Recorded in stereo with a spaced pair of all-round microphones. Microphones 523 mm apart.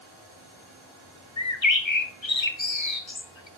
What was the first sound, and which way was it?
A bird, 60° left (ahead or behind).